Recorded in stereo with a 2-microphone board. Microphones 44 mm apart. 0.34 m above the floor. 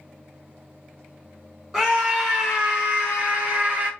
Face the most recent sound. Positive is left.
turn(degrees=-30)  # may be behind; listen again after turning